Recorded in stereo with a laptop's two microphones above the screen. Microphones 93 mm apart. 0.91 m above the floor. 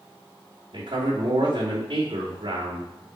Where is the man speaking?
70° right (ahead or behind), 2.5 m.